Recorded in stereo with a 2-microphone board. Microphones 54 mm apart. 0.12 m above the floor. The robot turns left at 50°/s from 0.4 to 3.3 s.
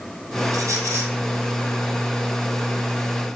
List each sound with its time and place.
0.5 s a squeak: 75° right (ahead or behind), 2.5 m; by 1.1 s 55° right (ahead or behind), 2.5 m